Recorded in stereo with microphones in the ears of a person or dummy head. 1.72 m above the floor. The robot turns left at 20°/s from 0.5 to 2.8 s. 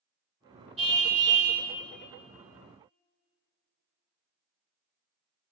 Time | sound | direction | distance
0.8 | a car horn | 35° right (ahead or behind) | 3 m